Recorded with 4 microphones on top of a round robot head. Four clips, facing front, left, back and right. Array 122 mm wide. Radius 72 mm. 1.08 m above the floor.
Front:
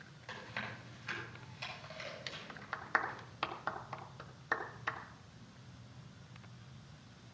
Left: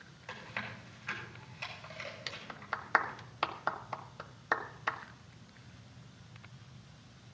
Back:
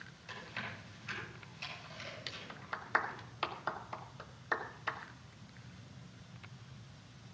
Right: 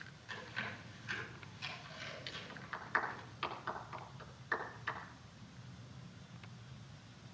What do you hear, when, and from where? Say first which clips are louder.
0.3 s chewing: left 2 dB, front 1 dB; 55° left, 7.5 m
2.3 s a clap: left 6 dB, even; 90° left, 1.3 m